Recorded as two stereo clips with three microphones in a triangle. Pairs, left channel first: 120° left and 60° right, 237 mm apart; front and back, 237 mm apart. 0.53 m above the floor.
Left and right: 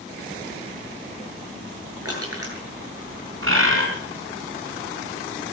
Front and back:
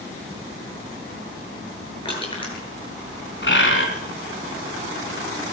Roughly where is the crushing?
Ahead right.